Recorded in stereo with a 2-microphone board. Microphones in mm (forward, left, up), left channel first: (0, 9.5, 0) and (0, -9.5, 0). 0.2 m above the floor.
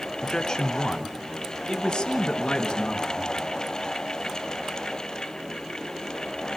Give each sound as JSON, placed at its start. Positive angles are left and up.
{"t": 0.2, "sound": "a man speaking", "side_deg": 35, "distance_m": 2.0}